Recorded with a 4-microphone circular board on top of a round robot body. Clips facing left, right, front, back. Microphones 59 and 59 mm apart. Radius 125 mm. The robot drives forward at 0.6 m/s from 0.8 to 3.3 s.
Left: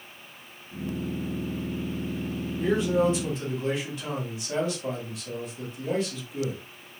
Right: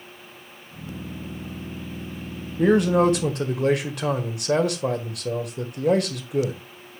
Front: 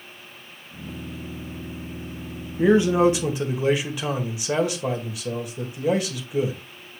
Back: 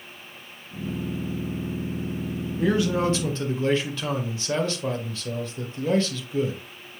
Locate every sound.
2.6 s a man speaking: 65° right, 2 m; by 6.6 s 75° right, 2.0 m